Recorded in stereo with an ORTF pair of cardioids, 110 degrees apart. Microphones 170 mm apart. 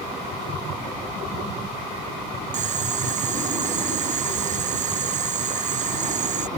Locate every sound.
2.5 s boiling: 45° right